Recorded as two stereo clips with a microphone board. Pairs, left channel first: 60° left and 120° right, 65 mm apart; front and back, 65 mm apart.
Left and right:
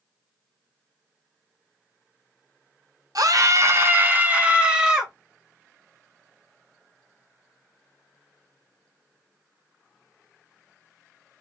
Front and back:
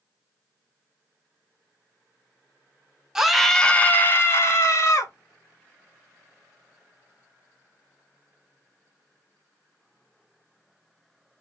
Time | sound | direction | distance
3.1 | a scream | 95° right | 1.0 m